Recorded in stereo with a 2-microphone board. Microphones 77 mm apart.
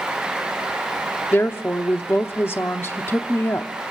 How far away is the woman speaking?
About 0.7 m.